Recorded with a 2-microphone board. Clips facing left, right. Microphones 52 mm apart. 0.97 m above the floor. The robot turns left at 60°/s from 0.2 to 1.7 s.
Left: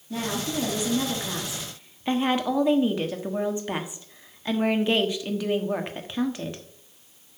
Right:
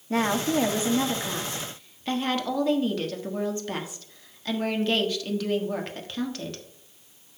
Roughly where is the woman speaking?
Right.